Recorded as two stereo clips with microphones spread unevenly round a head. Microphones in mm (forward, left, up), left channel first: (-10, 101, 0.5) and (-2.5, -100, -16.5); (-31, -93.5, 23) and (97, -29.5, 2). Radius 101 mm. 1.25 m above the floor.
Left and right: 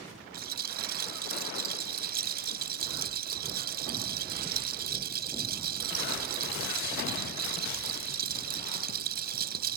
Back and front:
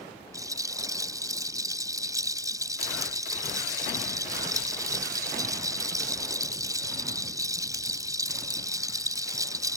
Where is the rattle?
40° right.